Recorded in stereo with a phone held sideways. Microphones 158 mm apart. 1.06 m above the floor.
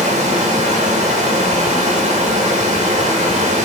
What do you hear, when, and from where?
0.0 s running water: 50° right (ahead or behind), 3 m